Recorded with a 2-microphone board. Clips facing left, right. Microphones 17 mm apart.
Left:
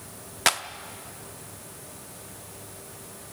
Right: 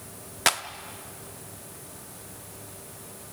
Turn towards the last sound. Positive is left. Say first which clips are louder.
# left 1 dB
turn(degrees=0)  # may be behind; listen again after turning